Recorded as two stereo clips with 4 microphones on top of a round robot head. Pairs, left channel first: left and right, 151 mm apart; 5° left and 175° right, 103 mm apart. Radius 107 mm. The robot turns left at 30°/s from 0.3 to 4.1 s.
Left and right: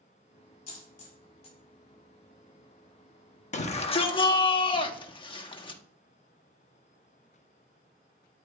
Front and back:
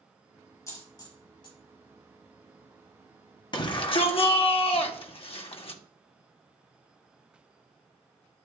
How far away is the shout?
About 1.3 m.